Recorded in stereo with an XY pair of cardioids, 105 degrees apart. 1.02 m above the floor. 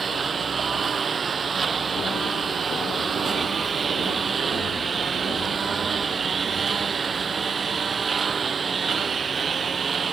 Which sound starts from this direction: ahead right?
A lawn mower, at 0.0 s.